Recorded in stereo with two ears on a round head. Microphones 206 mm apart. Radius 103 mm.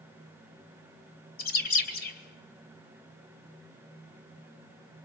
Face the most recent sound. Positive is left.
turn(degrees=45)  # may be behind; listen again after turning